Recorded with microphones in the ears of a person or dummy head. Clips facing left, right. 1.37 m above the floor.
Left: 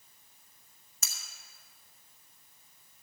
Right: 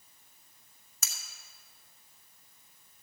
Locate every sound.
1.0 s cutlery clinking: 65° right (ahead or behind), 1.7 m